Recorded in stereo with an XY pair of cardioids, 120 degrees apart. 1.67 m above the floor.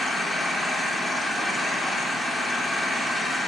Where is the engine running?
5° left, 3 m.